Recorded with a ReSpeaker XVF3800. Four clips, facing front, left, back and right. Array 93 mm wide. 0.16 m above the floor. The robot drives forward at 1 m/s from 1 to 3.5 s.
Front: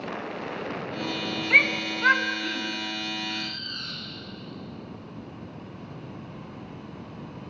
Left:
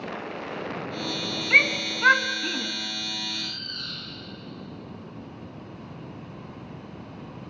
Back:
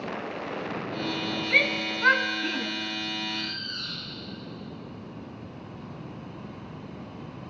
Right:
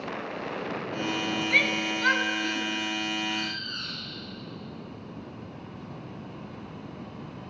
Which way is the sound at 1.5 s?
45° left.